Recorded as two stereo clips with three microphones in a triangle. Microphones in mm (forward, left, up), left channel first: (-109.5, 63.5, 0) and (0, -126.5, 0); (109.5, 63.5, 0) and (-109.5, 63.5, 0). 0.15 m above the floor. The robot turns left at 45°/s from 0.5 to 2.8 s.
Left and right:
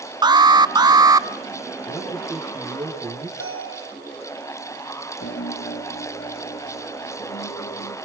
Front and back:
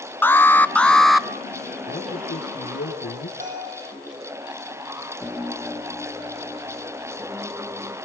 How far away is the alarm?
About 0.8 m.